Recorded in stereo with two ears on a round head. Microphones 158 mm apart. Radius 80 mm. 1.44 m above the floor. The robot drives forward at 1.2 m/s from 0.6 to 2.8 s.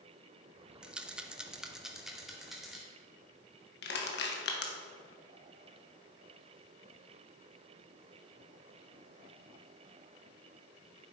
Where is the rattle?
5° right (ahead or behind), 0.7 m; by 2.8 s centre (ahead or behind), 2 m.